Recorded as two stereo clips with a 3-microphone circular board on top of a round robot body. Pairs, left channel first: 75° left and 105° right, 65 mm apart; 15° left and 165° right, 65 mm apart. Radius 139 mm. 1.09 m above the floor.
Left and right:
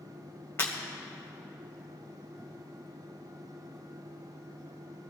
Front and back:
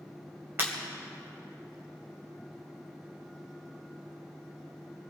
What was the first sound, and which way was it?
Breaking glass, 135° left.